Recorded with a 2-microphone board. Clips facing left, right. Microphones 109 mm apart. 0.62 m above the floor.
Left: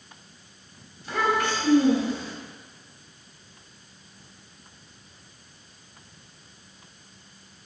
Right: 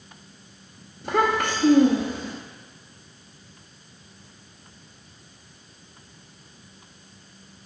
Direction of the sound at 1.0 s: 55° right (ahead or behind).